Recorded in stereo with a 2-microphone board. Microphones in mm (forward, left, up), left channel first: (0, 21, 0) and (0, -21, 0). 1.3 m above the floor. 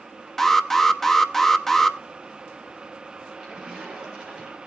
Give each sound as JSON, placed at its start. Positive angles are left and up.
{"t": 0.4, "sound": "an alarm", "side_deg": 10, "distance_m": 1.0}
{"t": 3.4, "sound": "a splash", "side_deg": -20, "distance_m": 6.0}